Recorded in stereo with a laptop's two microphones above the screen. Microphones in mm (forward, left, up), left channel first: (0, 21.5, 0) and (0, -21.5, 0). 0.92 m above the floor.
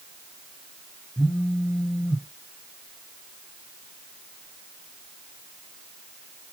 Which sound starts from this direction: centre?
A phone buzzing, at 1.2 s.